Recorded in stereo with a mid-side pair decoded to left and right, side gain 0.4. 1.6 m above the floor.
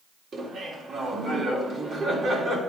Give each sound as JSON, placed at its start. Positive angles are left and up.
{"t": 0.3, "sound": "laughter", "azimuth_deg": -50, "distance_m": 3.5}